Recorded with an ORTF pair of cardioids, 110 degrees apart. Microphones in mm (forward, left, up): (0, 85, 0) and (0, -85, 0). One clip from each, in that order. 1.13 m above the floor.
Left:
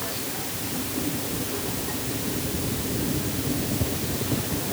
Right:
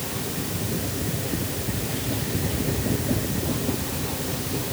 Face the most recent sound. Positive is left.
No sound to turn to.